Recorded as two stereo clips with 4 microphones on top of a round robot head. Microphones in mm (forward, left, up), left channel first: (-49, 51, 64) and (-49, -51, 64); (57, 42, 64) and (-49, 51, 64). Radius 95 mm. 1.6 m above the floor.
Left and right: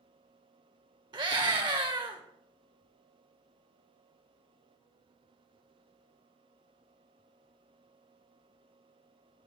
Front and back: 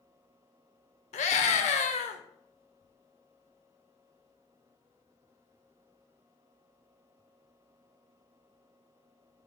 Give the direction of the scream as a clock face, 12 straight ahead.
1 o'clock.